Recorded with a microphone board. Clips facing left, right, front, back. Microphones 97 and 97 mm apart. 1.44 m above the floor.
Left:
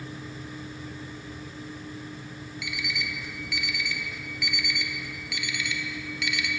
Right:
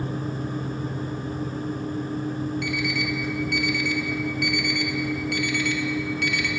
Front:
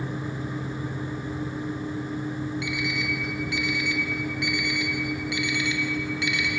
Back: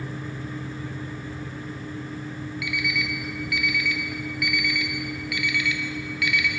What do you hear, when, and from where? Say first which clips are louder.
2.6 s an alarm clock: right 9 dB, even; 55° right, 1.3 m